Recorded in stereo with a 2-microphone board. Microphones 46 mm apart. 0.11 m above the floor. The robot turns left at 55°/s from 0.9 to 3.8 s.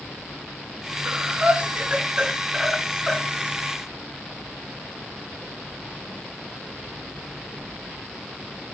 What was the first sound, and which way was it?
Breathing, 25° right (ahead or behind).